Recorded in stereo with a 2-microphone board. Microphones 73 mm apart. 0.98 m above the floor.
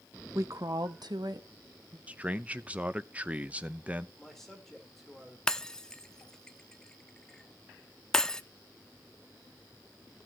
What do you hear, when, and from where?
0.3 s a woman speaking: 40° right (ahead or behind), 0.9 m; by 2.0 s 55° right (ahead or behind), 1.9 m
2.1 s a man speaking: 20° right (ahead or behind), 0.7 m
4.2 s a man speaking: 5° left (ahead or behind), 3.5 m
5.5 s breaking glass: 5° left (ahead or behind), 0.5 m